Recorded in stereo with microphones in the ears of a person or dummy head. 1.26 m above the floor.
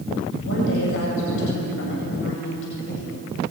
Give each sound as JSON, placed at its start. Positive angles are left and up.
{"t": 0.4, "sound": "a woman speaking", "side_deg": 75, "distance_m": 7.5}